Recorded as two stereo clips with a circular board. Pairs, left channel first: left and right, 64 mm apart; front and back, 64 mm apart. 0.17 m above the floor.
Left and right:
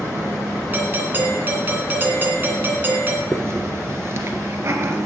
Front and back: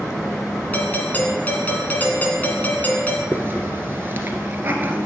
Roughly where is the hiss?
Behind right.